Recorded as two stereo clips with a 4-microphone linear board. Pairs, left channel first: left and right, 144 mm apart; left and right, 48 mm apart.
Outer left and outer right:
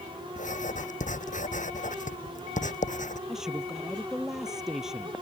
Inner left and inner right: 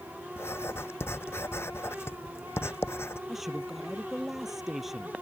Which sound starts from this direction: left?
Writing, at 0.4 s.